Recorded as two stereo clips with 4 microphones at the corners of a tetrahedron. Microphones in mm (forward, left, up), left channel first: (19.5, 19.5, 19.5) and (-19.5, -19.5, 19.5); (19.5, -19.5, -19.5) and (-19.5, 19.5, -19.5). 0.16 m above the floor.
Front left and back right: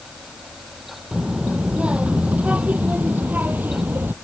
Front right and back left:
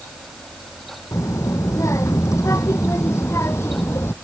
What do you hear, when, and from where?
1.1 s a child speaking: 60° right; by 4.1 s 80° right